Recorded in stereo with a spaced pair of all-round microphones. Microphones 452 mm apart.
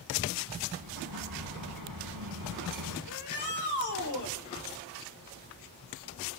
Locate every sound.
0.8 s an explosion: 45° right (ahead or behind), 8.5 m
3.1 s a shout: 40° left (ahead or behind), 5 m